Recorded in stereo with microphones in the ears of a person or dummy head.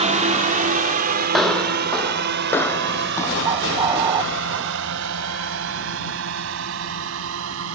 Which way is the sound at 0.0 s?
30° right (ahead or behind).